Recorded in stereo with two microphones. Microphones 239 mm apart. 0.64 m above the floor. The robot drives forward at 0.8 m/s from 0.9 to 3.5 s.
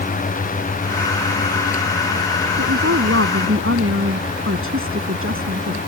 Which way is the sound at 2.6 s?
70° right (ahead or behind).